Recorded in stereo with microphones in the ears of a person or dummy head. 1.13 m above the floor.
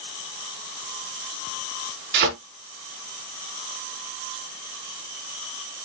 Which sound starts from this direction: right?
A thud, at 2.1 s.